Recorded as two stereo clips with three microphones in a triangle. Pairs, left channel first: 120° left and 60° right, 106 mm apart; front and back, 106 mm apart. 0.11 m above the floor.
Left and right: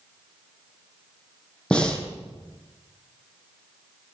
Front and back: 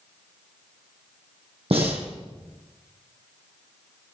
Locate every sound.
1.7 s breathing: 160° right, 3 m